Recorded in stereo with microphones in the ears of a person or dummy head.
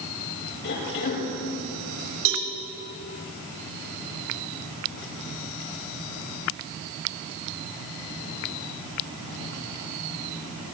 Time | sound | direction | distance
0.6 | a cough | 70° left (ahead or behind) | 6.5 m
2.2 | a cowbell | 65° right (ahead or behind) | 4.5 m